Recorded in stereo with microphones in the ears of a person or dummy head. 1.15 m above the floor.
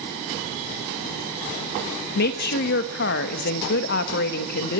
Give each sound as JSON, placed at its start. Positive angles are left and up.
{"t": 2.1, "sound": "a woman speaking", "side_deg": 60, "distance_m": 1.2}